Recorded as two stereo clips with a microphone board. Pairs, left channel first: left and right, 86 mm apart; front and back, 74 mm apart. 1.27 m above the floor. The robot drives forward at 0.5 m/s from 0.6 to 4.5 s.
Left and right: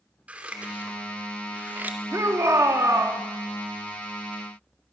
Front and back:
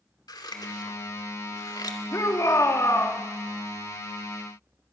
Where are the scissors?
15° right, 2.5 m; by 2.0 s 20° right, 2 m.